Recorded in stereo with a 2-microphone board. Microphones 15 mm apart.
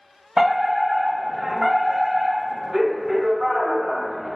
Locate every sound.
0.4 s a fire alarm: 45° right (ahead or behind), 1.6 m